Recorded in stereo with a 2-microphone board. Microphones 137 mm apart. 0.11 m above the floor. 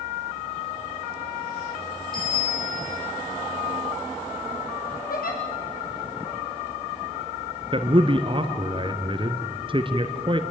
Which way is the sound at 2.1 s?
80° left.